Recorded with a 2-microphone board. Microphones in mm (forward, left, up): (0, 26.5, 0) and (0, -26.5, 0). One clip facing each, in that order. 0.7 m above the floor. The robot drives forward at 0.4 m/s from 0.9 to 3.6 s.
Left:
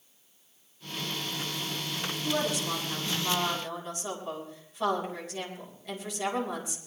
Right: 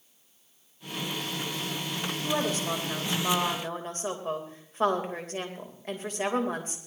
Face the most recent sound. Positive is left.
turn(degrees=-40)  # may be behind; listen again after turning